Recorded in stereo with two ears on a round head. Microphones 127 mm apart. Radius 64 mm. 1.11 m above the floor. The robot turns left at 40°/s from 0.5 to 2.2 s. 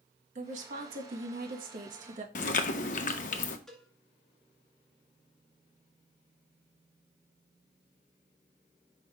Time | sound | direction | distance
0.3 | a woman speaking | 55° right | 1.8 m
2.4 | chewing | 55° left (ahead or behind) | 0.8 m
3.7 | a cowbell | 5° left (ahead or behind) | 2 m